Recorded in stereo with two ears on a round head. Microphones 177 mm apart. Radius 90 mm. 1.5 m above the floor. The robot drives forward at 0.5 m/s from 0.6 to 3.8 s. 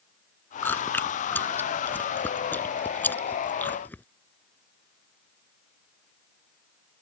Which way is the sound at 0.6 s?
10° left (ahead or behind).